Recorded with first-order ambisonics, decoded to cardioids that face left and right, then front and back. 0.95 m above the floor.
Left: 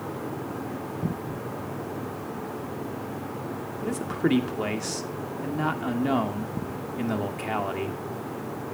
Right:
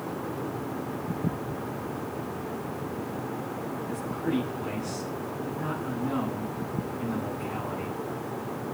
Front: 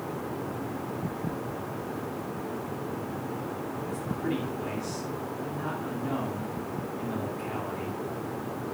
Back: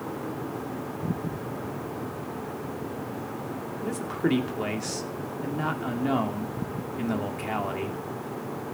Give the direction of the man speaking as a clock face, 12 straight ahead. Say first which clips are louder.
Left 8 dB, back 7 dB; 8 o'clock.